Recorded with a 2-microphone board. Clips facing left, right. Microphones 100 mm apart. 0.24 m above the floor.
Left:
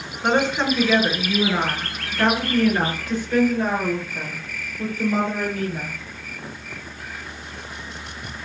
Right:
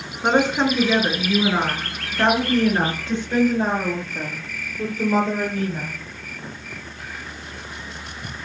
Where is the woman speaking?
15° right (ahead or behind), 4 m; by 6.0 s 30° right (ahead or behind), 7.5 m.